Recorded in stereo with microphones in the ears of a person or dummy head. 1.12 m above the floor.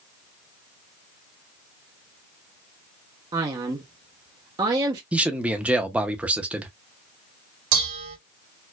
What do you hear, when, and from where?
3.3 s a man speaking: 20° right (ahead or behind), 0.5 m
5.1 s a man speaking: 10° right (ahead or behind), 0.6 m
7.7 s dishes clattering: 75° right (ahead or behind), 2.5 m